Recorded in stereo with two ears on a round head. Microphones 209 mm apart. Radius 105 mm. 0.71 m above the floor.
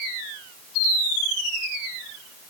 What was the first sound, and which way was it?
Only background noise.